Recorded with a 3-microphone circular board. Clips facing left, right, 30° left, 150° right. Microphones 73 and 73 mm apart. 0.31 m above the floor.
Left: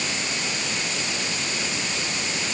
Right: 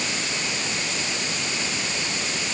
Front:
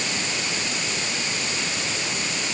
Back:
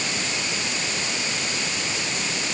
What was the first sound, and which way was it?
Only background noise.